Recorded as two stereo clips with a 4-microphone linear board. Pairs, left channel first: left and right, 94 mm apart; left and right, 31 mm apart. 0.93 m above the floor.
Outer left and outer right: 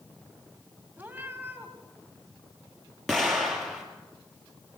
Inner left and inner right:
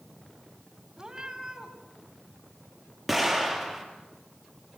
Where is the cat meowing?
15° right (ahead or behind), 3 m.